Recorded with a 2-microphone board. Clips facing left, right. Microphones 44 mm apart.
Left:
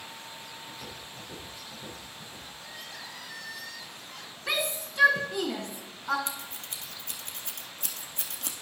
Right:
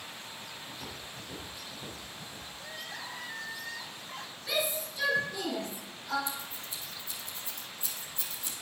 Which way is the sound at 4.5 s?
70° left (ahead or behind).